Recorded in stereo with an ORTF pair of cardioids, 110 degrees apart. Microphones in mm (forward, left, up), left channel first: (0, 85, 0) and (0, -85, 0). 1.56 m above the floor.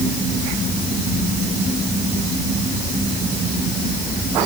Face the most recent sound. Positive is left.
No sound to turn to.